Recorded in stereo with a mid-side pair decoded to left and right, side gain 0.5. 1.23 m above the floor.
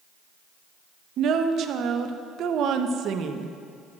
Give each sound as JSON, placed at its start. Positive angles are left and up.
{"t": 1.2, "sound": "a woman speaking", "azimuth_deg": -60, "distance_m": 0.9}